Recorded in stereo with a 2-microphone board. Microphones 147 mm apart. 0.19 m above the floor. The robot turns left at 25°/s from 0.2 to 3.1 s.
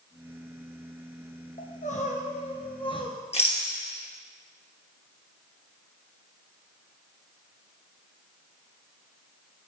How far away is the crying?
About 1.4 m.